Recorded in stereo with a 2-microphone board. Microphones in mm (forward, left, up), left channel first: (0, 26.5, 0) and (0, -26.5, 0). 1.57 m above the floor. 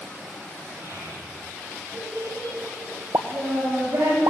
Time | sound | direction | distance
0.8 | a child speaking | 65° right (ahead or behind) | 10 m
3.1 | a pop | 70° right (ahead or behind) | 1.1 m